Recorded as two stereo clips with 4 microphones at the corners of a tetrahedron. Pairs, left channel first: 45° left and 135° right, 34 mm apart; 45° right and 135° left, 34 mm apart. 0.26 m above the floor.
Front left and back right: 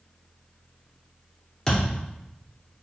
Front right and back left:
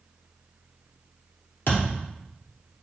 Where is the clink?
No clink in this recording.